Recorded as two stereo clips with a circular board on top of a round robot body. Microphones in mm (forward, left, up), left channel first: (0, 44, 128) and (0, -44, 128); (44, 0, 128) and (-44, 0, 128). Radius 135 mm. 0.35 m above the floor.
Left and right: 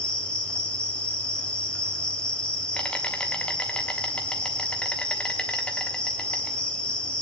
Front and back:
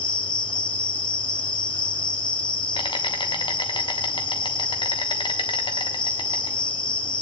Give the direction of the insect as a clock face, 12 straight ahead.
12 o'clock.